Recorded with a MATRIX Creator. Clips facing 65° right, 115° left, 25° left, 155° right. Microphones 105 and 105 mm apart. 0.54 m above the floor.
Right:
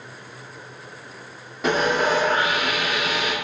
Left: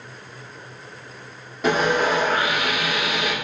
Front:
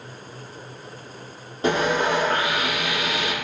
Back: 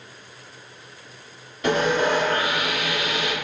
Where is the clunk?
No clunk in this recording.